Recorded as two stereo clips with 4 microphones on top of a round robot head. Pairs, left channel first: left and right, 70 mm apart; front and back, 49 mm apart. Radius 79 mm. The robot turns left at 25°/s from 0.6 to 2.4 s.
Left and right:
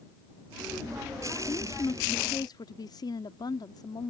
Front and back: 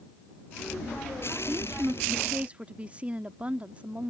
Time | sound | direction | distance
1.5 | a woman speaking | 135° left | ?